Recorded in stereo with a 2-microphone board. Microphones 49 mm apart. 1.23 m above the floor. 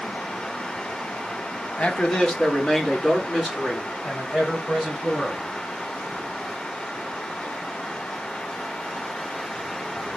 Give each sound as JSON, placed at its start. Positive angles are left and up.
{"t": 1.8, "sound": "a man speaking", "side_deg": 25, "distance_m": 0.9}